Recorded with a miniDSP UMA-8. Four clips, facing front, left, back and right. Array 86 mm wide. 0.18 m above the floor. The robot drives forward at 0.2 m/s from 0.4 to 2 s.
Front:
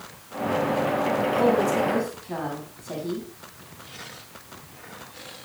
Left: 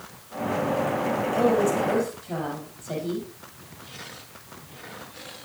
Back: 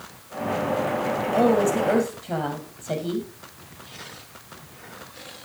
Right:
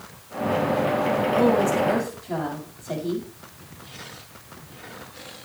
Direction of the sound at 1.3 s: Straight behind.